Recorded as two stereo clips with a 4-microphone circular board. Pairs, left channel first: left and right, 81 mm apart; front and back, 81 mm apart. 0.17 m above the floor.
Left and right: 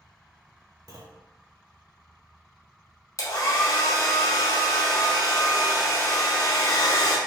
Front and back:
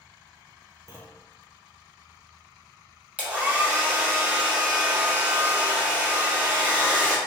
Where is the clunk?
130° right, 0.7 m.